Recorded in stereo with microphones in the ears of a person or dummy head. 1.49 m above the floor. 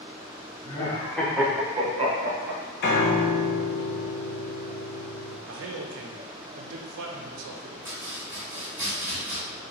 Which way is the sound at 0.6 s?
20° left (ahead or behind).